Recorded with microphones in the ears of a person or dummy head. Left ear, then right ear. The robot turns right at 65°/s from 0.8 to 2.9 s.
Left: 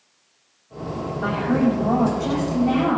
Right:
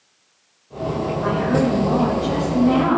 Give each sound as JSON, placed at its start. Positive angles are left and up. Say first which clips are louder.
{"t": 1.2, "sound": "a woman speaking", "louder": "right 1 dB", "azimuth_deg": 60, "distance_m": 7.5}